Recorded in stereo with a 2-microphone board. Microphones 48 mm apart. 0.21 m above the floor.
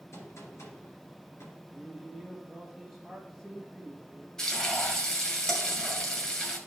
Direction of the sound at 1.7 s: Centre (ahead or behind).